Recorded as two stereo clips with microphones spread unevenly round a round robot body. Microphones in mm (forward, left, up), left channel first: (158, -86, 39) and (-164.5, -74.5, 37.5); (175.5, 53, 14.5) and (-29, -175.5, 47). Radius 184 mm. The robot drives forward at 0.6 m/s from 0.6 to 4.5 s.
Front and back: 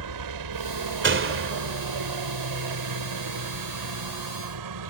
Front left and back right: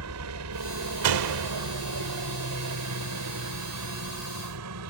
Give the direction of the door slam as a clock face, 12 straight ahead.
4 o'clock.